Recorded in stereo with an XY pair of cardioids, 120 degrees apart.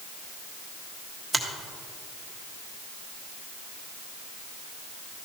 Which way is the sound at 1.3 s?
5° right.